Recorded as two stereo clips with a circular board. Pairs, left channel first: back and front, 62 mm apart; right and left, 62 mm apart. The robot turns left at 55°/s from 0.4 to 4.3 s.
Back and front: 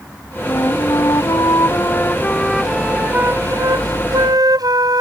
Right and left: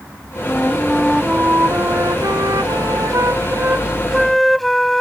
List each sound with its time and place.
0.5 s a flute: 150° right; by 5.0 s straight ahead